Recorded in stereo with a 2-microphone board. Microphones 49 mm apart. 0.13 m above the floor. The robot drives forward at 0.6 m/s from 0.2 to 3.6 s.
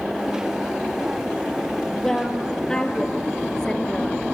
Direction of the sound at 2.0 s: 10° left (ahead or behind).